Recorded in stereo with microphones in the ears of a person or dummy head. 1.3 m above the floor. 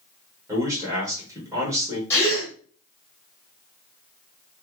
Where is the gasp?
15° left (ahead or behind), 1.5 m.